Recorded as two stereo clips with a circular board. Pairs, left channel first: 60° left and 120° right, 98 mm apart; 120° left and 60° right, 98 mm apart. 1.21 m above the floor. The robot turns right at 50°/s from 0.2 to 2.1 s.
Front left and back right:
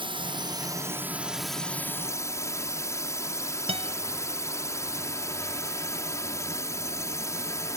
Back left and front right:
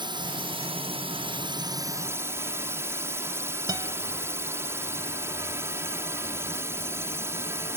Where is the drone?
90° right; by 7.8 s 5° left.